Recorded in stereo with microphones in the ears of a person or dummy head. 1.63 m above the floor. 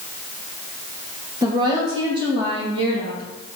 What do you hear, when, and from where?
1.4 s a woman speaking: 20° right (ahead or behind), 1.4 m; by 3.3 s 35° right (ahead or behind), 3.5 m